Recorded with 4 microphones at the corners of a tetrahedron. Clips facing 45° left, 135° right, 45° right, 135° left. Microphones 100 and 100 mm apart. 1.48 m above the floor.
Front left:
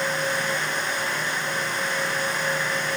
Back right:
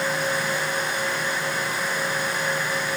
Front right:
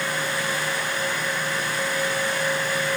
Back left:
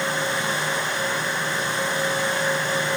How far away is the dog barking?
No dog barking in this recording.